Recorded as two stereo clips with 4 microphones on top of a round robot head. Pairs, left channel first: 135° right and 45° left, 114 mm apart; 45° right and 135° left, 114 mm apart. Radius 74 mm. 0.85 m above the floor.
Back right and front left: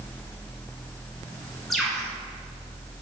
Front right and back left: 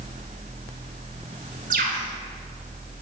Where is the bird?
135° left, 1.8 m.